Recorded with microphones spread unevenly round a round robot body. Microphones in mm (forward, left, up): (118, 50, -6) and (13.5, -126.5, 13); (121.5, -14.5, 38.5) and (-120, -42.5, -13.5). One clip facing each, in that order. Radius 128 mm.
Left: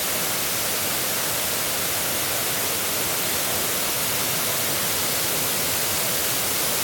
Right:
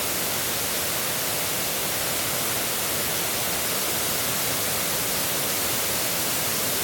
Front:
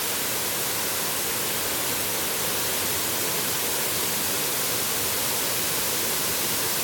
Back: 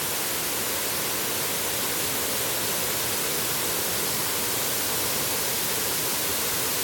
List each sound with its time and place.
Only background noise.